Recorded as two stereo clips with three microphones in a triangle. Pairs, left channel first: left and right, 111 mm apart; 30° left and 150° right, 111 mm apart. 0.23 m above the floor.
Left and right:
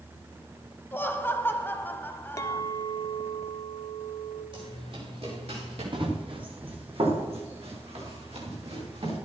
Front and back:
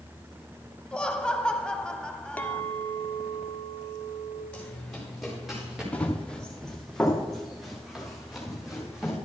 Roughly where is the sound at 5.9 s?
Ahead right.